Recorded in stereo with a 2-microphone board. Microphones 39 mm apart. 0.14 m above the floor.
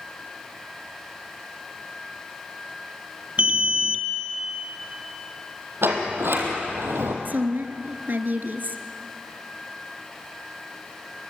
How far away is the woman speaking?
About 1.8 m.